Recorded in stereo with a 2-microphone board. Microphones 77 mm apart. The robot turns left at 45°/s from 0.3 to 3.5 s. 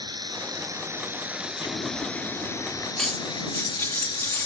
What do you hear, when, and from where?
0.0 s running water: 115° right; by 4.5 s 100° left
1.6 s an explosion: 90° left; by 2.9 s 35° left
3.0 s cutlery clinking: 10° left (ahead or behind); by 4.5 s 30° left (ahead or behind)